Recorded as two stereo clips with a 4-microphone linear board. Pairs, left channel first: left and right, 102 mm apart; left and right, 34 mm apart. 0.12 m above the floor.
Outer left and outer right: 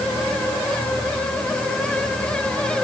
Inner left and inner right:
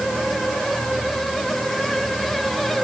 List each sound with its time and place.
Only background noise.